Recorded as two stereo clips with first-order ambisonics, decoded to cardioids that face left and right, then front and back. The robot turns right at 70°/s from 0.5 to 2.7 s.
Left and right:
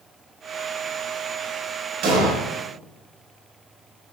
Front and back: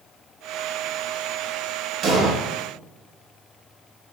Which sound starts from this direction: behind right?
An explosion, at 2.0 s.